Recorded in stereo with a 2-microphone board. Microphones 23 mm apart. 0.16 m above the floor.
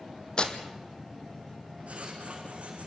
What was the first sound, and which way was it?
Tearing paper, 40° left (ahead or behind).